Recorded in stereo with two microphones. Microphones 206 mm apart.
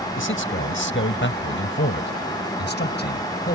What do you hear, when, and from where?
0.2 s a man speaking: 75° left (ahead or behind); by 3.6 s 50° left (ahead or behind)